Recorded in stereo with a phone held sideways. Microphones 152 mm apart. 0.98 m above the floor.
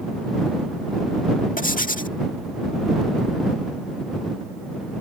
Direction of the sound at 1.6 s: 60° left (ahead or behind).